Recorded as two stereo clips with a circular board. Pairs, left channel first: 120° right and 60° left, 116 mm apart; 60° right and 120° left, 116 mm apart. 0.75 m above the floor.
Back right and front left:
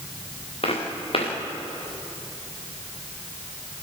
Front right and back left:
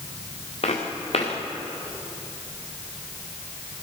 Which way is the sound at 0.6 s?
85° right.